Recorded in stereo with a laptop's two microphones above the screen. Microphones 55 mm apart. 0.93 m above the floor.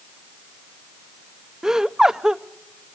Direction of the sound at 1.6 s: 10° right (ahead or behind).